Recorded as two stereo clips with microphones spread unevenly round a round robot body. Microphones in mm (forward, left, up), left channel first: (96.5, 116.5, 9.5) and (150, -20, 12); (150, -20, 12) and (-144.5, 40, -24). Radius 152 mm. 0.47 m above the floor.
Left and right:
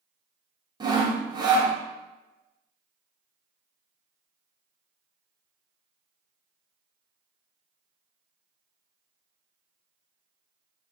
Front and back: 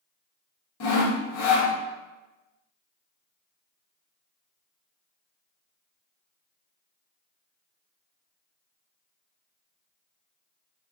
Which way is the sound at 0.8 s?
20° right.